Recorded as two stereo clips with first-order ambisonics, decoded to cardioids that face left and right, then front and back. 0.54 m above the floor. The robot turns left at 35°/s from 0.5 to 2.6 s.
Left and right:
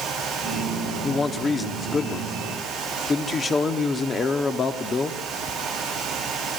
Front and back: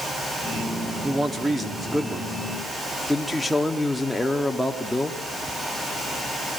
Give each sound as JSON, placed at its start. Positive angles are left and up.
{"t": 1.0, "sound": "a man speaking", "azimuth_deg": 140, "distance_m": 1.1}